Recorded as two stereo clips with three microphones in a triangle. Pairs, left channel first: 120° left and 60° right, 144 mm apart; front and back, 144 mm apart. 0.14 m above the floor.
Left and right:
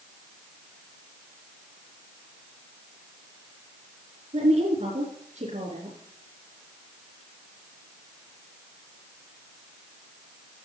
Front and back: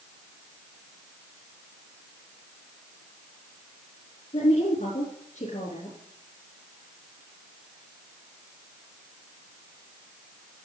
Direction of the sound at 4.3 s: 30° right.